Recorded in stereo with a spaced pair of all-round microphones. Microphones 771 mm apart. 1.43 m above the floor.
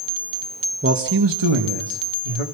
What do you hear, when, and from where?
0.8 s a man speaking: 15° right (ahead or behind), 1.3 m; by 2.4 s 55° right (ahead or behind), 3 m